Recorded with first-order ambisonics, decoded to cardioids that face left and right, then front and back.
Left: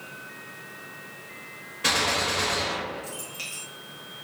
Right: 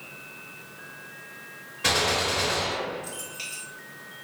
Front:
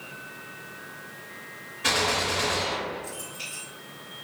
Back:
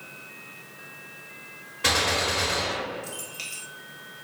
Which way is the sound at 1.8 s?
170° left.